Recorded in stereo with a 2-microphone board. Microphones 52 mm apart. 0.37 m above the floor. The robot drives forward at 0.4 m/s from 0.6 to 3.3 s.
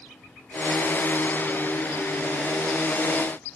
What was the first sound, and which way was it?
Only background noise.